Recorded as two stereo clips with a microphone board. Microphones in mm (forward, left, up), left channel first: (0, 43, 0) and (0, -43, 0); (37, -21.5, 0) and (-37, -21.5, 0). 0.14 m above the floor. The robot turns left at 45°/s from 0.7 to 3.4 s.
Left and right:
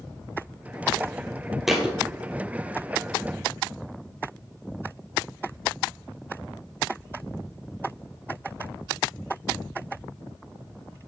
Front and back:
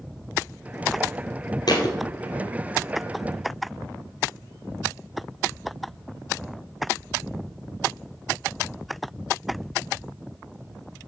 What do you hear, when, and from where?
1.7 s a thud: 5° right, 1.6 m; by 2.0 s 15° right, 1.6 m